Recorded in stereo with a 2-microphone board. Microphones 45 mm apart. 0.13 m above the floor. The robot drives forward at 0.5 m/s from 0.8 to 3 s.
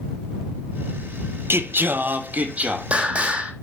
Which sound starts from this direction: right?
Singing, at 1.5 s.